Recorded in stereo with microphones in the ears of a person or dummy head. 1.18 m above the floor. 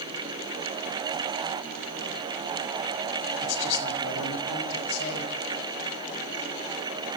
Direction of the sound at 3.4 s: 65° left (ahead or behind).